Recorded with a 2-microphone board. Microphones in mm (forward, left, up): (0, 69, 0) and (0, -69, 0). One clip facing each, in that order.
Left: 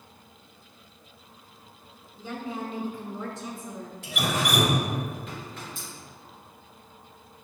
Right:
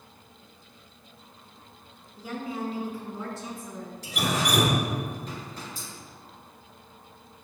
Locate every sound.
2.2 s a woman speaking: 10° right (ahead or behind), 1.4 m; by 3.9 s 5° left (ahead or behind), 1.3 m
4.0 s dripping: 40° right (ahead or behind), 1.4 m